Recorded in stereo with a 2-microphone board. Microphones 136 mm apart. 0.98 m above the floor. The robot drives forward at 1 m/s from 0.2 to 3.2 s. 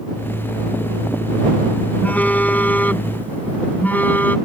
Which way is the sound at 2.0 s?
10° left (ahead or behind).